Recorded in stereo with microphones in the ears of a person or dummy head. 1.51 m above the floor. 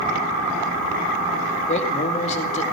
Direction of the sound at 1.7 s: 35° left (ahead or behind).